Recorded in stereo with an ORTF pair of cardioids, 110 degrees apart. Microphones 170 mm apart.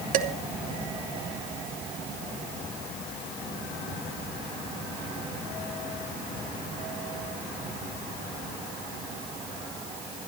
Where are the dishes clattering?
60° right, 2.5 m.